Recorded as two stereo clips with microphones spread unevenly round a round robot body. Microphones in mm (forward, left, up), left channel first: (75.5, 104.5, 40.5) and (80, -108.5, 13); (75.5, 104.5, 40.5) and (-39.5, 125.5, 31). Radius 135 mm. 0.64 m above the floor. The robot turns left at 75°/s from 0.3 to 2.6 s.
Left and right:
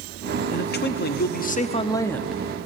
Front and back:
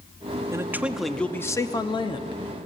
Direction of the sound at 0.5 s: 125° left.